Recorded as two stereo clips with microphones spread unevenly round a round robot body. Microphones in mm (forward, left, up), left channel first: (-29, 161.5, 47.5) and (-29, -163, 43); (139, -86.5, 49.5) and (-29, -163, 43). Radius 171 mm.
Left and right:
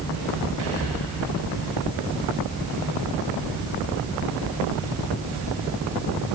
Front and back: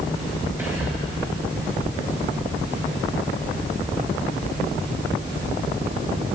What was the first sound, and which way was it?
Whispering, 75° right.